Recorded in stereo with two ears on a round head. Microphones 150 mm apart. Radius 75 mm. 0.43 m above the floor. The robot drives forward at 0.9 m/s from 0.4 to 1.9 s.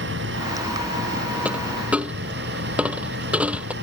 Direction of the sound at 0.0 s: 70° right (ahead or behind).